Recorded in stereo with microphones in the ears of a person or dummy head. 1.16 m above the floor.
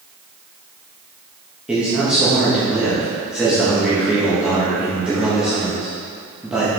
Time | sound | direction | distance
1.7 | a man speaking | 5° right (ahead or behind) | 1.7 m